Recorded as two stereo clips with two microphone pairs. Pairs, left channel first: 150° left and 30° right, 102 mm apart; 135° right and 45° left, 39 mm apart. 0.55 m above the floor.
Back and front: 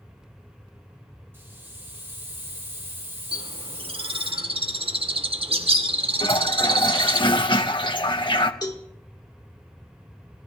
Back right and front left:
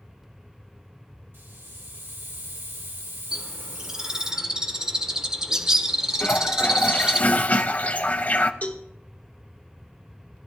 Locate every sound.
1.3 s a hiss: 35° left, 2.5 m
3.3 s a bird: 25° right, 0.9 m
6.2 s a toilet flushing: straight behind, 0.7 m
8.6 s a cowbell: 170° right, 1.3 m